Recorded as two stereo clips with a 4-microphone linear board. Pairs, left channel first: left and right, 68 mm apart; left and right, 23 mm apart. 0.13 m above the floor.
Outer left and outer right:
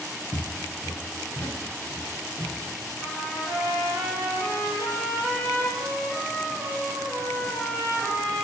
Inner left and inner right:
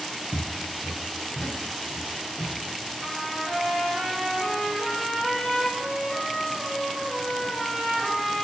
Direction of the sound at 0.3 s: 75° left (ahead or behind).